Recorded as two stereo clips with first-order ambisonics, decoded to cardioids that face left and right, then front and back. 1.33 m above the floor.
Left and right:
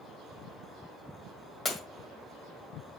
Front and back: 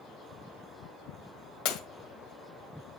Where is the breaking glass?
20° left, 1.5 m.